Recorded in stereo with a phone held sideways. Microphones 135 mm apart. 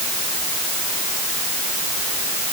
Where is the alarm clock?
I don't hear an alarm clock.